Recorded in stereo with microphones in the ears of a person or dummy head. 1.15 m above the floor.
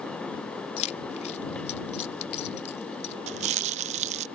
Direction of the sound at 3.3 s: 40° right (ahead or behind).